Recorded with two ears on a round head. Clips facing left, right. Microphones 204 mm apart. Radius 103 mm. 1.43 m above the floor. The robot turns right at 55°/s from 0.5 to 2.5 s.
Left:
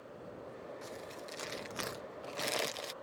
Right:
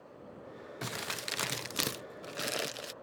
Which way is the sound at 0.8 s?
100° right.